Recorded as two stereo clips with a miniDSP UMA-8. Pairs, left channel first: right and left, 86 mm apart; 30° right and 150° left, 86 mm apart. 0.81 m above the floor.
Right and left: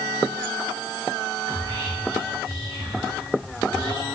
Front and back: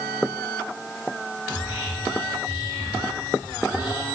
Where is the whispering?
80° left, 3 m.